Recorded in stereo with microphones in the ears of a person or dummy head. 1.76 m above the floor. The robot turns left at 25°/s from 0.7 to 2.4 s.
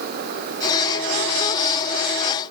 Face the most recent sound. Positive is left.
No sound to turn to.